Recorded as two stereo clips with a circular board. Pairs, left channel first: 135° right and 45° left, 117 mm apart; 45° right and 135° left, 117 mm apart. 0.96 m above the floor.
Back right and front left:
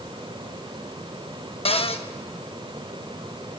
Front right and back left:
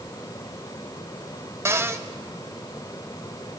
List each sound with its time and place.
1.6 s a cupboard door: 160° right, 1.0 m